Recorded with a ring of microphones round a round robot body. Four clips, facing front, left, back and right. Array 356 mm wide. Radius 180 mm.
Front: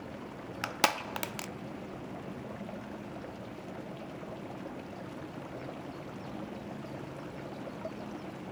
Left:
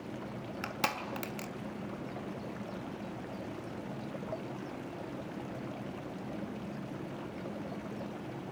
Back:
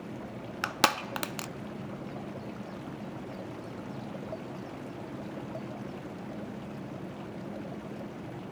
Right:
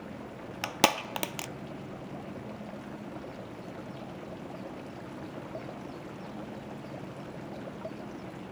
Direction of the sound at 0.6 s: 115° right.